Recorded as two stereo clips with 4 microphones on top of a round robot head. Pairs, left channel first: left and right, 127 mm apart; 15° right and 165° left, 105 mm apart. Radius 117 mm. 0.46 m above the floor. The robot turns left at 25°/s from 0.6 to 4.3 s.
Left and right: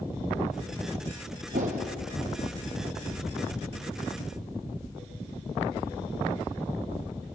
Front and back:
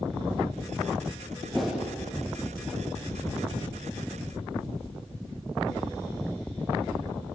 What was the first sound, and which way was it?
A whoosh, 100° right.